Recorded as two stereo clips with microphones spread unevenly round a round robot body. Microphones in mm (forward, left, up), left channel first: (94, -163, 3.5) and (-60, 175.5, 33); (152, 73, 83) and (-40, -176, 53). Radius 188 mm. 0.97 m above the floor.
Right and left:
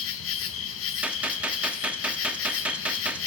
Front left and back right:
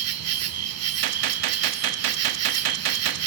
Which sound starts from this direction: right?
An insect, at 0.0 s.